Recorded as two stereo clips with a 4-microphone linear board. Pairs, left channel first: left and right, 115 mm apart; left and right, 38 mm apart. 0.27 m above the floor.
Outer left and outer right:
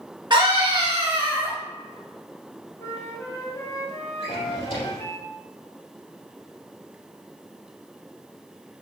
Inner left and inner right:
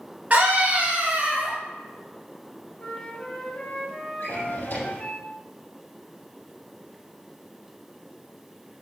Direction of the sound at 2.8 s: 25° left (ahead or behind).